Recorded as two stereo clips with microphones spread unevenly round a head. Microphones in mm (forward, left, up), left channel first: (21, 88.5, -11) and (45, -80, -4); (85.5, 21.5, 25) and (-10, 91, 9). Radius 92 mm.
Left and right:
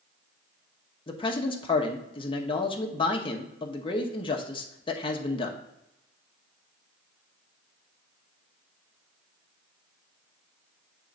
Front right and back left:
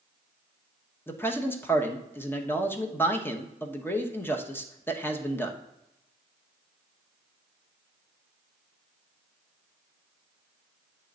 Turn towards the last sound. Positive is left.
turn(degrees=40)